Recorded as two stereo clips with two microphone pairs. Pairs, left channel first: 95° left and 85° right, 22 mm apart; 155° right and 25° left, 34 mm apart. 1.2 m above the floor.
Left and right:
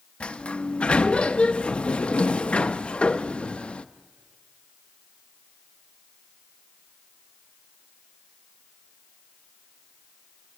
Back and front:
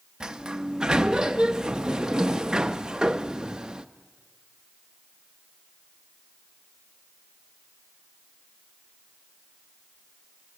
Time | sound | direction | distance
0.2 | a sliding door | 85° left | 0.6 m